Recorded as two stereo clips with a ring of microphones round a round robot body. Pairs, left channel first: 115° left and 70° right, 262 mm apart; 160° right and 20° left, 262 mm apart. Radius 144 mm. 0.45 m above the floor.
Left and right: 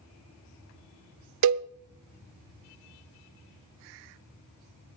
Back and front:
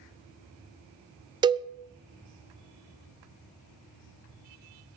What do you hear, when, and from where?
1.4 s a cowbell: 50° right, 0.5 m